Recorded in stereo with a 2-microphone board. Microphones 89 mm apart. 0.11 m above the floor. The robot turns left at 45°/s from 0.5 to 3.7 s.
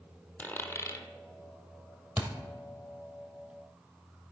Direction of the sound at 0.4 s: 20° left (ahead or behind).